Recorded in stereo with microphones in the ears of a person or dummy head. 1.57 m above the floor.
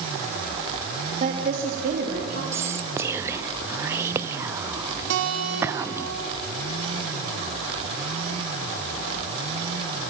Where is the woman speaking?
50° right (ahead or behind), 2.5 m; by 2.4 s 65° right (ahead or behind), 4 m.